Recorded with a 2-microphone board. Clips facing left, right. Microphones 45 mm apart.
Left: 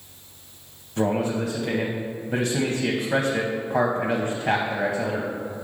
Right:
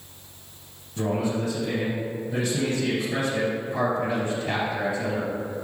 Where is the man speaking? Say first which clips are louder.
Left 2 dB; 50° left (ahead or behind), 0.8 m.